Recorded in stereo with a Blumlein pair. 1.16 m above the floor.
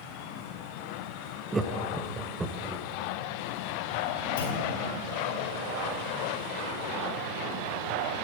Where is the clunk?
65° left, 4.5 m.